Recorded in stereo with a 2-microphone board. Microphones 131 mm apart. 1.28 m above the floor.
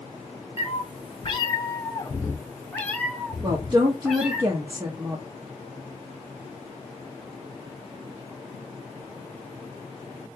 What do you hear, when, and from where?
0.6 s a cat meowing: 45° left (ahead or behind), 0.8 m; by 4.4 s centre (ahead or behind), 2.0 m
3.4 s a woman speaking: 35° right (ahead or behind), 0.8 m